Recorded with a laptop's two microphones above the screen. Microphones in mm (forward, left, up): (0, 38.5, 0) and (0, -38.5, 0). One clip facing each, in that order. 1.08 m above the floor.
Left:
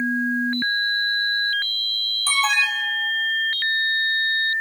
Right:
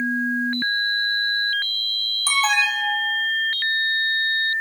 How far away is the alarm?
About 3 m.